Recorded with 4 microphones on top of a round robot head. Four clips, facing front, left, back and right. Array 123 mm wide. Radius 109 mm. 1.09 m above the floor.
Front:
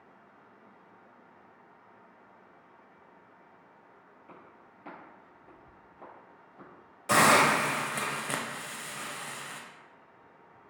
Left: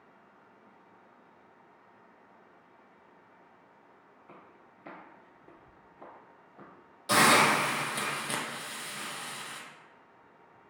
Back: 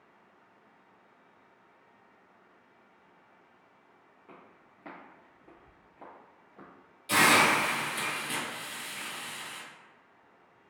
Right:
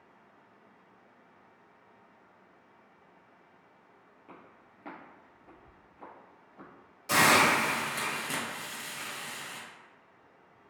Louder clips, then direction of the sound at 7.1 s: Left 1 dB, front 2 dB; 20° left.